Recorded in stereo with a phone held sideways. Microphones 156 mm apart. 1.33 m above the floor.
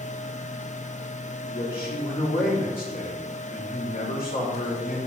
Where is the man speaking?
85° left, 4.5 m.